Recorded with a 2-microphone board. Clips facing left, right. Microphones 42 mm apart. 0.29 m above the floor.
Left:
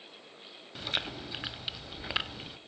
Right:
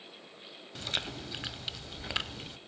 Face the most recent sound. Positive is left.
turn(degrees=10)  # may be behind; listen again after turning